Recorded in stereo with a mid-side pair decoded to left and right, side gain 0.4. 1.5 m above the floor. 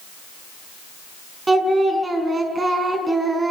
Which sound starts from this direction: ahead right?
Singing, at 1.5 s.